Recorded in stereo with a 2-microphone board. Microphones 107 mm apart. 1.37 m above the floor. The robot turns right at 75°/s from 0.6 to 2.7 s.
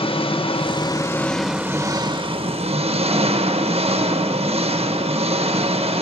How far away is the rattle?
No rattle in this recording.